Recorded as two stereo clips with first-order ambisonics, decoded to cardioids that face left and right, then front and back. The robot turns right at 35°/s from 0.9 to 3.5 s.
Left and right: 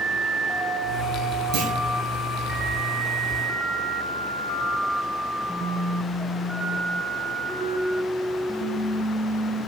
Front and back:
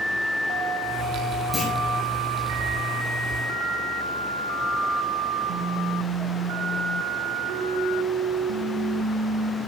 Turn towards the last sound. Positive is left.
turn(degrees=-15)